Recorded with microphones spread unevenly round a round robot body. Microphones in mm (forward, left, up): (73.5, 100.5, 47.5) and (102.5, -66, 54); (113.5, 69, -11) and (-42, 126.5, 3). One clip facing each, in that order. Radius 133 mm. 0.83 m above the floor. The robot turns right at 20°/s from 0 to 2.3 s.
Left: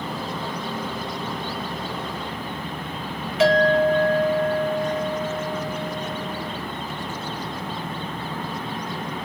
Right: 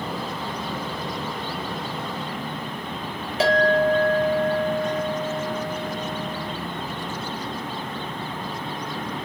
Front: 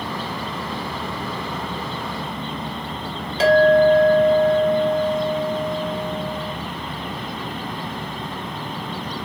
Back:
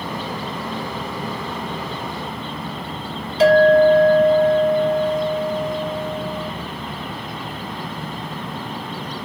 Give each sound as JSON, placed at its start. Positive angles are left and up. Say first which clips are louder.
{"t": 3.4, "sound": "a clink", "louder": "left 2 dB, back 2 dB", "azimuth_deg": -25, "distance_m": 1.4}